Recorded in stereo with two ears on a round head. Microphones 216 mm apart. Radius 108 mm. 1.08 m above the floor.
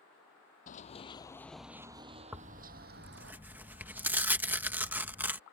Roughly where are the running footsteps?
Left.